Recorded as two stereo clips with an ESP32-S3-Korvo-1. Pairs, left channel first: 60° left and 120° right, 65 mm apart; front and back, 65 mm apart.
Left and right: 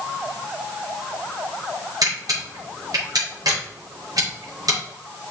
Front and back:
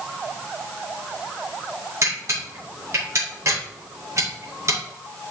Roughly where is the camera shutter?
Behind right.